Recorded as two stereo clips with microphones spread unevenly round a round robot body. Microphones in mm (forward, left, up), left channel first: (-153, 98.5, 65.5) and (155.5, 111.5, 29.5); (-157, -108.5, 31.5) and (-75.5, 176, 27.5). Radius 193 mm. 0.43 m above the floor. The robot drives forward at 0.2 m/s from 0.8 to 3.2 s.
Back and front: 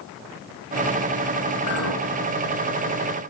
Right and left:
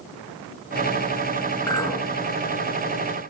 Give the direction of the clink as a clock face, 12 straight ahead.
6 o'clock.